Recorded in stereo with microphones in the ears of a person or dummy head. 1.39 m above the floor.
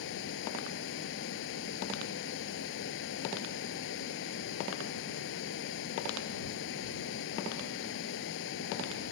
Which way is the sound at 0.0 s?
65° left (ahead or behind).